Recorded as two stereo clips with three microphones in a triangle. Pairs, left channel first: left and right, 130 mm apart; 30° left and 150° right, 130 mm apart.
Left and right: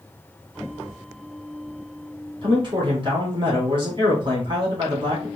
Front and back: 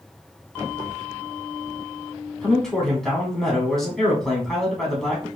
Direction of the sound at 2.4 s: 55° right.